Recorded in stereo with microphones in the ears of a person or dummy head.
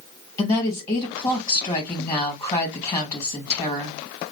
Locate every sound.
0.4 s a woman speaking: 10° left (ahead or behind), 1.7 m